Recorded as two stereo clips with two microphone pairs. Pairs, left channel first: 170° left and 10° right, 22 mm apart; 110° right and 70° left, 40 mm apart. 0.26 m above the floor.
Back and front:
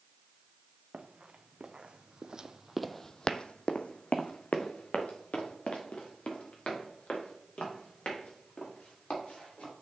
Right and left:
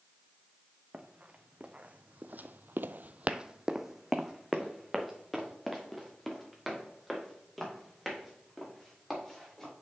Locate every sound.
0.9 s running footsteps: 10° left, 1.5 m; by 9.7 s 170° left, 5 m